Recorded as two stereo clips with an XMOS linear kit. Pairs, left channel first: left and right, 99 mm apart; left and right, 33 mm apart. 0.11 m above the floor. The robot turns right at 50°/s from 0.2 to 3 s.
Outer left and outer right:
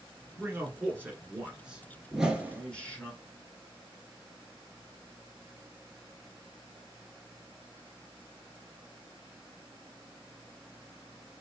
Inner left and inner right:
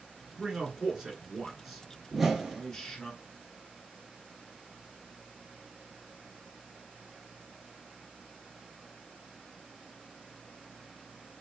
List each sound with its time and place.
0.4 s a man speaking: 25° right (ahead or behind), 1.1 m; by 3.1 s 15° left (ahead or behind), 1.1 m
2.1 s a whoosh: 5° right (ahead or behind), 0.6 m; by 2.6 s 20° right (ahead or behind), 0.6 m